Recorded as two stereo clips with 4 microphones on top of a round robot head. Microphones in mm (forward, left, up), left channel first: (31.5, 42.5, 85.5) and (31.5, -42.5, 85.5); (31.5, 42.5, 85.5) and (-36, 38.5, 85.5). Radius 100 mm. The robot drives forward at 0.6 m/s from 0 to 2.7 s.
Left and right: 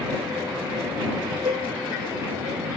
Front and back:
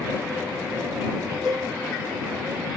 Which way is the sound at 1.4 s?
135° right.